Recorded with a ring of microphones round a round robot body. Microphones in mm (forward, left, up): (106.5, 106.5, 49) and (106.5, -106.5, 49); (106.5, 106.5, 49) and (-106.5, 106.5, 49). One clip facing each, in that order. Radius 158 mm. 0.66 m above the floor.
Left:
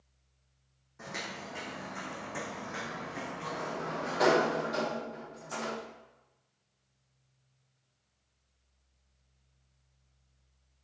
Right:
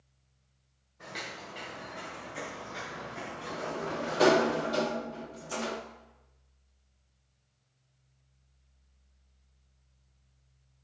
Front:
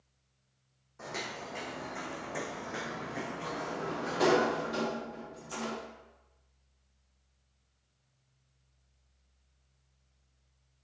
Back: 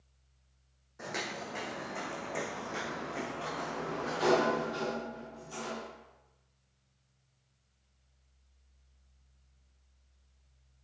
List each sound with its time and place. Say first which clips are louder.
1.0 s footsteps: left 2 dB, back 2 dB; 105° left, 2 m; by 4.5 s 65° left, 3.5 m
3.5 s a sliding door: right 3 dB, front 1 dB; 35° right, 0.8 m